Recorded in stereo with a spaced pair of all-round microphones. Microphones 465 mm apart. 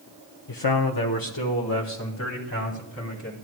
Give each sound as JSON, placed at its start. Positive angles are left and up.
{"t": 0.5, "sound": "a man speaking", "side_deg": 40, "distance_m": 0.7}